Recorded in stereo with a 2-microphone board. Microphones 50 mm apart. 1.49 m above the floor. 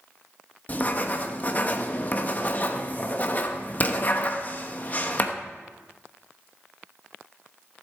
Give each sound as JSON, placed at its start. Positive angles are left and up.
{"t": 0.7, "sound": "writing", "side_deg": 35, "distance_m": 1.0}